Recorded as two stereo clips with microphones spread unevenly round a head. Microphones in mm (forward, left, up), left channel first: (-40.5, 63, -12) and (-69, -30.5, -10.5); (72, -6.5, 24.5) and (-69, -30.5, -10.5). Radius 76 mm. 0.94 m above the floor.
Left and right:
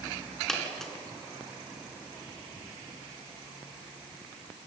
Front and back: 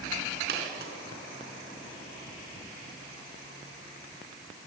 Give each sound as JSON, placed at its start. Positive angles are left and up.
{"t": 0.5, "sound": "a dropped coin", "azimuth_deg": 160, "distance_m": 5.0}